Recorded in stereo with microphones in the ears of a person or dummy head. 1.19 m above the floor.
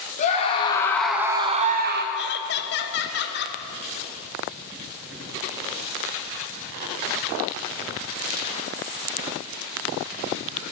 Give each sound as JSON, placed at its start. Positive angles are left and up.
{"t": 0.2, "sound": "a scream", "side_deg": 35, "distance_m": 1.3}
{"t": 2.1, "sound": "laughter", "side_deg": 50, "distance_m": 0.8}